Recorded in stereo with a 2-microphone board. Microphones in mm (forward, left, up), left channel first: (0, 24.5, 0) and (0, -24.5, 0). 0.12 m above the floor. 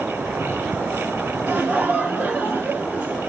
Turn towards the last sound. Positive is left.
turn(degrees=-25)  # may be behind; listen again after turning